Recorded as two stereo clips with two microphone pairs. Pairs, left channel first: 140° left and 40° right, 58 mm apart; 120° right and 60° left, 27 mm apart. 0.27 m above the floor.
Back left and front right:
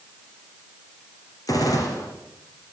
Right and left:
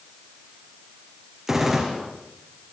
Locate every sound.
1.5 s a gunshot: 140° left, 5.5 m